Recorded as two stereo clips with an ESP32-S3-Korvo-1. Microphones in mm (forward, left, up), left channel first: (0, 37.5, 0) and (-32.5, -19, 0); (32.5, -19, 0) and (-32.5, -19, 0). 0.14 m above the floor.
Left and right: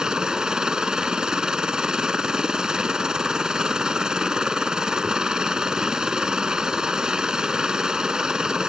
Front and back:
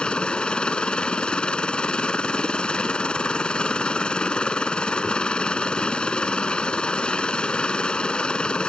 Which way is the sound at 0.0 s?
55° right.